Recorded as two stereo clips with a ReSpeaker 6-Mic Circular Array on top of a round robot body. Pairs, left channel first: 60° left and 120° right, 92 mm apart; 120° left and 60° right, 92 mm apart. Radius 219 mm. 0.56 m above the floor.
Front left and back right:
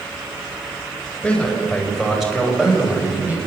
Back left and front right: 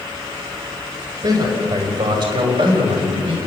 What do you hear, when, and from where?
1.2 s a man speaking: 20° right, 5 m; by 3.4 s 45° right, 5 m